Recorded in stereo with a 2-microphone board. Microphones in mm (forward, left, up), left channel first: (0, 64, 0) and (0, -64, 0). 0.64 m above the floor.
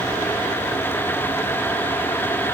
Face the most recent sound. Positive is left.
No sound to turn to.